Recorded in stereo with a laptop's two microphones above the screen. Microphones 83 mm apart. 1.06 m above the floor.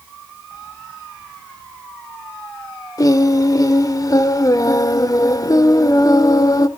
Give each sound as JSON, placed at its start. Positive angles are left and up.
{"t": 3.0, "sound": "singing", "side_deg": 45, "distance_m": 1.0}